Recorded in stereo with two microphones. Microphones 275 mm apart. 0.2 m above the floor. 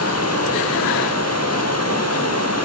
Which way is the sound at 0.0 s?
65° left (ahead or behind).